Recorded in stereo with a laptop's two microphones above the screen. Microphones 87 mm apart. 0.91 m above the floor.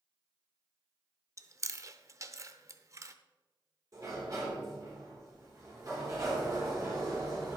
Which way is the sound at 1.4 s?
40° right (ahead or behind).